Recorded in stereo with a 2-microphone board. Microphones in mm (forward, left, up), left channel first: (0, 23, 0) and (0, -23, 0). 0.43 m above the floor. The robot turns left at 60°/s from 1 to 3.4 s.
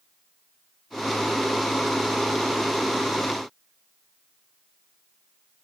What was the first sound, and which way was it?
Only background noise.